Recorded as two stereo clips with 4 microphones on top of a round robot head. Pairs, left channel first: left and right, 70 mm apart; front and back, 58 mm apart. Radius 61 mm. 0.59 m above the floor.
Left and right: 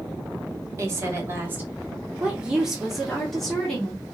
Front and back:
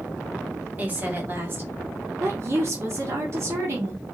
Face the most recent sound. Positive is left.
turn(degrees=165)